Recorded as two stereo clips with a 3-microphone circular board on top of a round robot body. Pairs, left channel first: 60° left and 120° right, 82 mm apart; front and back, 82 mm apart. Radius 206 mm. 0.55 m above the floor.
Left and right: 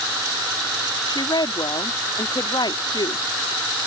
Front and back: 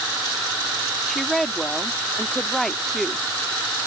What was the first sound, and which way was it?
A woman speaking, 85° left.